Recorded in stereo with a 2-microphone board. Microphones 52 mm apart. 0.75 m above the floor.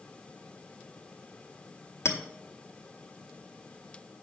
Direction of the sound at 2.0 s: 70° left (ahead or behind).